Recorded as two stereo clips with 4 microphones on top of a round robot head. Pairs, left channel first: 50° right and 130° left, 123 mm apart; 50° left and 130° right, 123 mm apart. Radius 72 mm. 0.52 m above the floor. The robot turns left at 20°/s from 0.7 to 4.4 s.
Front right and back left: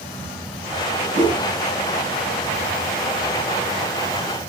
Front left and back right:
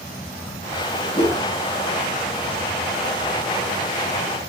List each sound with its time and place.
1.1 s a whoosh: 85° left, 2.5 m; by 1.4 s 80° left, 2.5 m